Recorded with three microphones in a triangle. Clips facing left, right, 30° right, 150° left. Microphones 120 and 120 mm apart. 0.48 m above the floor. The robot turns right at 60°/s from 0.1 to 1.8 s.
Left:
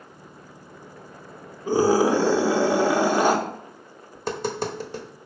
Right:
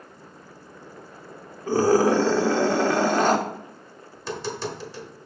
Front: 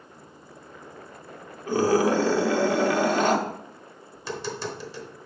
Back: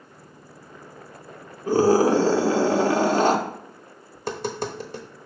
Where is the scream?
150° left, 0.8 m; by 3.4 s 160° left, 0.8 m.